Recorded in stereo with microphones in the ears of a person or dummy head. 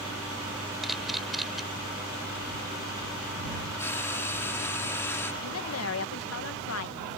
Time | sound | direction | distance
0.8 | a camera shutter | 5° left (ahead or behind) | ?
3.8 | frying | 10° left (ahead or behind) | ?
5.4 | a woman speaking | 75° left (ahead or behind) | ?